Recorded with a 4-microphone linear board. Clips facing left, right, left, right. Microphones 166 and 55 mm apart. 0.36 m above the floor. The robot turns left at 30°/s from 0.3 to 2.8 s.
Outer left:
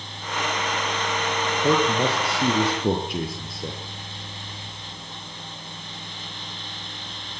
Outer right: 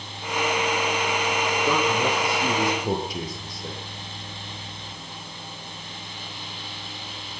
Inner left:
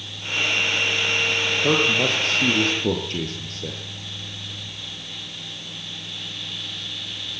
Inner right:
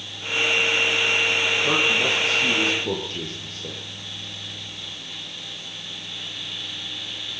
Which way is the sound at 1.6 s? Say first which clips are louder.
Outer left 4 dB, inner left 4 dB; 80° left.